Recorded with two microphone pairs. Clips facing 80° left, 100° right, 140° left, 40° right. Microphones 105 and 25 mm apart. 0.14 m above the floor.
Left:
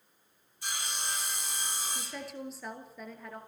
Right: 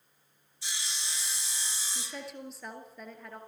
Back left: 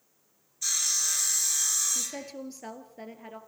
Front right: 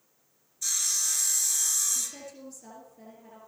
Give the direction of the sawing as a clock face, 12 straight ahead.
10 o'clock.